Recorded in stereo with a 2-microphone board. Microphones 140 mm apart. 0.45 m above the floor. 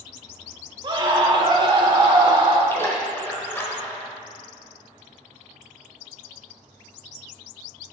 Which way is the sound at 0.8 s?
35° right (ahead or behind).